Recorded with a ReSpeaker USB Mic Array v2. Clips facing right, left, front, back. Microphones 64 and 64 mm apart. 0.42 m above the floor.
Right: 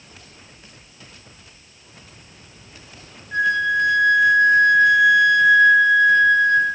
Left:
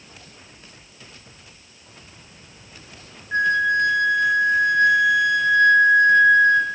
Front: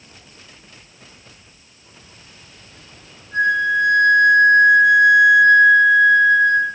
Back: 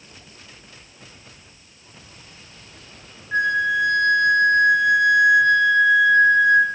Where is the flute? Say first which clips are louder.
Even, front 3 dB; 150° left, 0.9 m.